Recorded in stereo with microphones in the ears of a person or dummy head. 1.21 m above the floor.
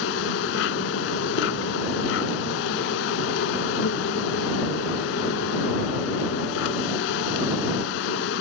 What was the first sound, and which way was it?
An insect, 55° left (ahead or behind).